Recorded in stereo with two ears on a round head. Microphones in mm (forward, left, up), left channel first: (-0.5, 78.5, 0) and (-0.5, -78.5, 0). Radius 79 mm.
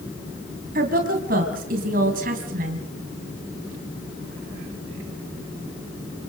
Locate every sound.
0.8 s a woman speaking: 55° right (ahead or behind), 3 m